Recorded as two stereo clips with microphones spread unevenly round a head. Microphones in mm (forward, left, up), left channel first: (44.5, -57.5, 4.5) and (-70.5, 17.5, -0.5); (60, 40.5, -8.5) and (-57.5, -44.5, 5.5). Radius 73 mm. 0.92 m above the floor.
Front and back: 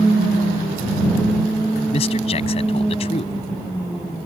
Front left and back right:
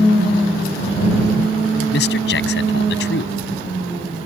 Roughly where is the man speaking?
Ahead.